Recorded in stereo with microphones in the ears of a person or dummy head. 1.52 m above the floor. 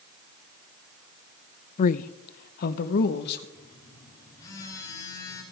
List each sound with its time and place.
1.8 s a man speaking: 40° left (ahead or behind), 0.5 m; by 3.4 s 55° left (ahead or behind), 1.6 m
3.5 s a phone buzzing: 20° left (ahead or behind), 4.5 m